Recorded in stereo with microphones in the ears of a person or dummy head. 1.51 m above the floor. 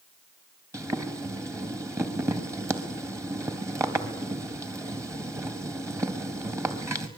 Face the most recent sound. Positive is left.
turn(degrees=-20)  # may be behind; listen again after turning